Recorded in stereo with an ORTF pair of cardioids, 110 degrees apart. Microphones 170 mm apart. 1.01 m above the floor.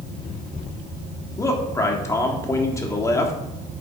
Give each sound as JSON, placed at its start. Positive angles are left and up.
{"t": 1.4, "sound": "a man speaking", "azimuth_deg": 20, "distance_m": 1.9}